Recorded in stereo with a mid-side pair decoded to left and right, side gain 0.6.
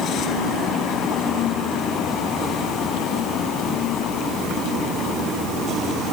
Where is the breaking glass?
I don't hear breaking glass.